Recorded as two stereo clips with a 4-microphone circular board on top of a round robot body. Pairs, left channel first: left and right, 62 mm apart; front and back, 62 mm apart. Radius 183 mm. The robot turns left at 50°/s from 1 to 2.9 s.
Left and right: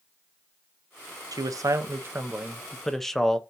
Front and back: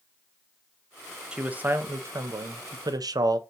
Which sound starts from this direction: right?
A man speaking, at 1.3 s.